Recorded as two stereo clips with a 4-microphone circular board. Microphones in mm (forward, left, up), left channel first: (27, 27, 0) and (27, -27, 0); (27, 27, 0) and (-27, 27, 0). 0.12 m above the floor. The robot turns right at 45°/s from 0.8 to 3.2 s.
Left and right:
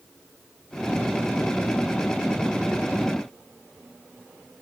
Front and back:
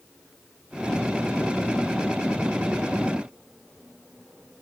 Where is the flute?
I don't hear a flute.